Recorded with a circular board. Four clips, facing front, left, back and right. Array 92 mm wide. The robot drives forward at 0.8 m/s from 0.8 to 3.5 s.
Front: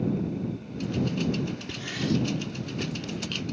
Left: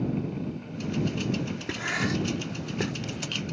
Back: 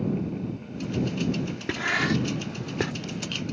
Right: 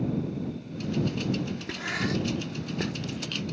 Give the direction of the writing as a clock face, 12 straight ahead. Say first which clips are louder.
Left 2 dB, back 4 dB; 6 o'clock.